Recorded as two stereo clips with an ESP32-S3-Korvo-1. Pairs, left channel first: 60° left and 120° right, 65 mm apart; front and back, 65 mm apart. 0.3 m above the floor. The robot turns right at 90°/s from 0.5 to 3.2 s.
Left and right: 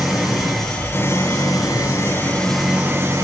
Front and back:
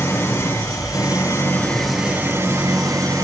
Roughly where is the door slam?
No door slam in this recording.